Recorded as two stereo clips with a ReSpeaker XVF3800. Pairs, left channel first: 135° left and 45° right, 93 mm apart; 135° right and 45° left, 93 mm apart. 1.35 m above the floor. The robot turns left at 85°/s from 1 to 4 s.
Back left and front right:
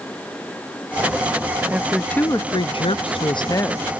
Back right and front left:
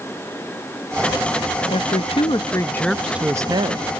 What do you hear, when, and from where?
1.7 s a woman speaking: 115° right, 0.5 m; by 3.9 s 60° left, 0.5 m